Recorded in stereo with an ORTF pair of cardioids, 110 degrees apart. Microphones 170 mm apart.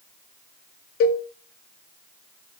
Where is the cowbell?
60° left, 0.5 m.